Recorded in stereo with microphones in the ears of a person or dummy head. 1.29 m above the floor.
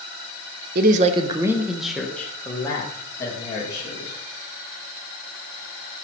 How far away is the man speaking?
About 0.7 m.